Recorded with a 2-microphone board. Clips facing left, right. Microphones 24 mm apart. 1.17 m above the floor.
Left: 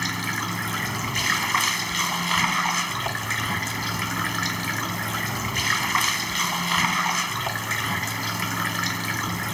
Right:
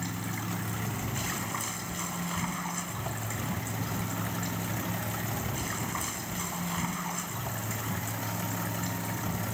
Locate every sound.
0.0 s running water: 65° left (ahead or behind)